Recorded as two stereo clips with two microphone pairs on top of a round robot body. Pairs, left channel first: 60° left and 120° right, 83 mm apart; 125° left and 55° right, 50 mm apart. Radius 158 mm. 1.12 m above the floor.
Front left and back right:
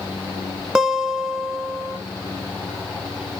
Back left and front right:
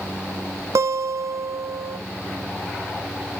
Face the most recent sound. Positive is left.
turn(degrees=-40)